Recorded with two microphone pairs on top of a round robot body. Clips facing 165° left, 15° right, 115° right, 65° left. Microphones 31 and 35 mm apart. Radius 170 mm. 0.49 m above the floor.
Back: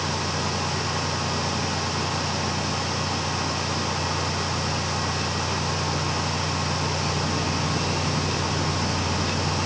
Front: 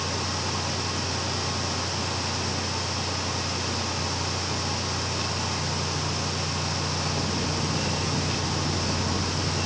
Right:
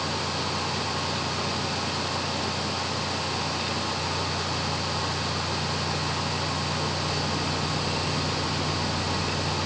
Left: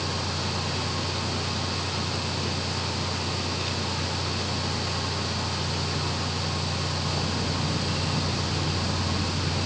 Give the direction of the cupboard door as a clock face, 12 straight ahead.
No cupboard door in this recording.